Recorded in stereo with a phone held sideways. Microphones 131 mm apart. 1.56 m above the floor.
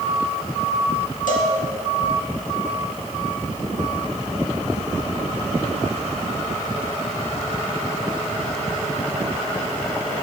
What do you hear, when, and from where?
1.3 s a cowbell: 80° left, 2 m